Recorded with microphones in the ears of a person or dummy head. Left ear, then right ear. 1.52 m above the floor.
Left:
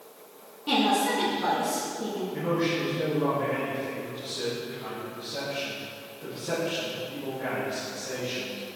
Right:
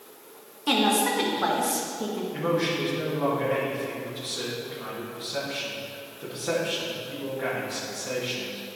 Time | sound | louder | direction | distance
0.7 | a woman speaking | right 1 dB | 50° right (ahead or behind) | 1.8 m
2.3 | a man speaking | right 2 dB | 40° right (ahead or behind) | 2.5 m